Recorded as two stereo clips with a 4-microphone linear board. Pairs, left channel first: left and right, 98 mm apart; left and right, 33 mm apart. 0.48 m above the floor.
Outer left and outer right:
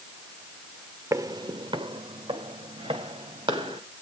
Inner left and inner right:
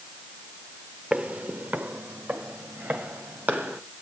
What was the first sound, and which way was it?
Footsteps, 30° right (ahead or behind).